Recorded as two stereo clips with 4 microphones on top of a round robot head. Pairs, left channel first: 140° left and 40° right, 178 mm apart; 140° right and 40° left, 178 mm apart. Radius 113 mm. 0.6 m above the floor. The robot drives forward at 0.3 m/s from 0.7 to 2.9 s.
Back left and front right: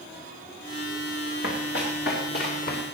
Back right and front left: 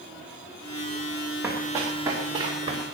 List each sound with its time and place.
1.4 s running footsteps: 120° left, 4 m; by 2.8 s 100° left, 4 m